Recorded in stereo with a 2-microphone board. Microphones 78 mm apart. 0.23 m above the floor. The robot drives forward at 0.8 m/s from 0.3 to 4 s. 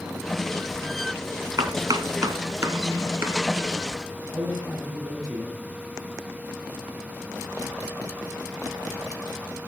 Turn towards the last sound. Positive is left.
turn(degrees=-45)  # may be behind; listen again after turning